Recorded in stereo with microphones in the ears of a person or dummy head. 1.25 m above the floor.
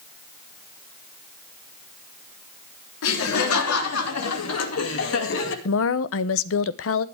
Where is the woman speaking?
65° left (ahead or behind), 0.9 m.